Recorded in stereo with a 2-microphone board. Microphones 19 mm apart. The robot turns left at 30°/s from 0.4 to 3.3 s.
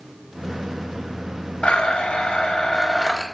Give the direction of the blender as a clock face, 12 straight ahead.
9 o'clock.